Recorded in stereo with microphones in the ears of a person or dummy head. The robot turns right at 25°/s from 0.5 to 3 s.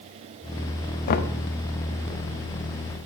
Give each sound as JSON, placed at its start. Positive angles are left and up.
{"t": 1.1, "sound": "knocking", "side_deg": 45, "distance_m": 0.8}